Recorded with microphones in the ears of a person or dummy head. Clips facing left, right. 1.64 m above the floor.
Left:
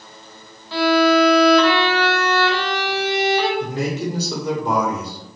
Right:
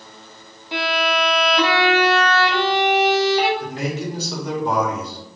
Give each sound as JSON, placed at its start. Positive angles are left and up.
{"t": 0.7, "sound": "a violin", "side_deg": -20, "distance_m": 0.5}
{"t": 3.6, "sound": "a man speaking", "side_deg": 80, "distance_m": 1.3}